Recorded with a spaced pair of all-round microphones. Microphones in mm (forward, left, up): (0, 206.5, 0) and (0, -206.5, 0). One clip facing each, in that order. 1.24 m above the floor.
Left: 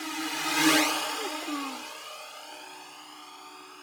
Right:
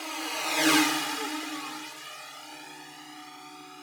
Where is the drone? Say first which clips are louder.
Left 3 dB; 35° left (ahead or behind); by 3.8 s 35° right (ahead or behind).